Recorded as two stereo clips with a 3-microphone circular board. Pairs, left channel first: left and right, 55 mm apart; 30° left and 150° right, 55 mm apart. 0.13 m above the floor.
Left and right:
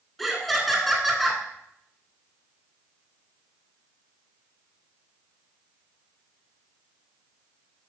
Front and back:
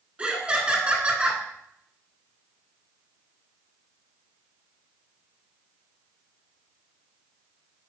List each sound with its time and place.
0.2 s laughter: 175° left, 1.6 m